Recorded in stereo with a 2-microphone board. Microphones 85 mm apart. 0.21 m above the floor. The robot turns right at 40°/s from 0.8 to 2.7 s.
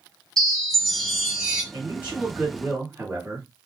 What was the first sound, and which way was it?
A chime, 170° left.